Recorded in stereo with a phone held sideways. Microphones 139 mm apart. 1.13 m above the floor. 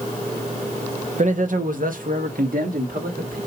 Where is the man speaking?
55° right (ahead or behind), 0.8 m; by 3.4 s 75° right (ahead or behind), 2 m.